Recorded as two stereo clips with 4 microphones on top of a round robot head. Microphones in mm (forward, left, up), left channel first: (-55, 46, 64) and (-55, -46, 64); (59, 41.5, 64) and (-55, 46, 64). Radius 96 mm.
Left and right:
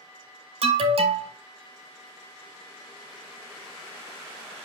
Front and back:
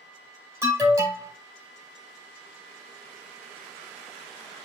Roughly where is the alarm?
Right.